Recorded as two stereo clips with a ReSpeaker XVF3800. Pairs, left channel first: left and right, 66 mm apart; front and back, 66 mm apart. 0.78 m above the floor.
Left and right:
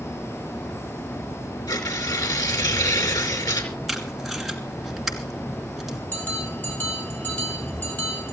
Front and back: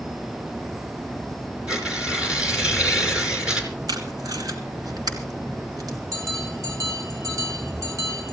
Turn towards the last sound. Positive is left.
turn(degrees=150)